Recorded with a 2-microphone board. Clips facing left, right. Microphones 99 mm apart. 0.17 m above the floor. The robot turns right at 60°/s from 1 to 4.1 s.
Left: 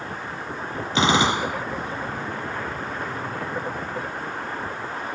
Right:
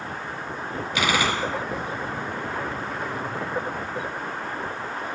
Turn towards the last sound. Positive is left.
turn(degrees=-55)